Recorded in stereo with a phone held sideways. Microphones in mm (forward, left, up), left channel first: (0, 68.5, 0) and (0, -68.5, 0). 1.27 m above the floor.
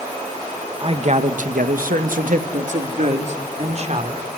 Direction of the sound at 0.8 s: 40° right (ahead or behind).